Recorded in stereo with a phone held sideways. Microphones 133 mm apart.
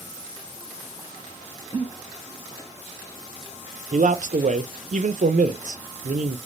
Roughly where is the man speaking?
Right.